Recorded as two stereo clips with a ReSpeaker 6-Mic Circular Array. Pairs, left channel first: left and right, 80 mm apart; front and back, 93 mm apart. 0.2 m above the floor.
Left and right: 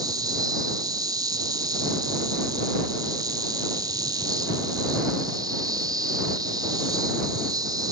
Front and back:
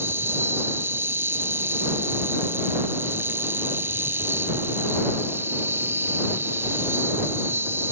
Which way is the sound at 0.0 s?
115° right.